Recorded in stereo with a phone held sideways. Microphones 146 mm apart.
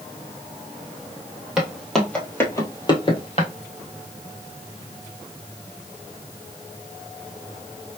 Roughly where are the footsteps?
Centre.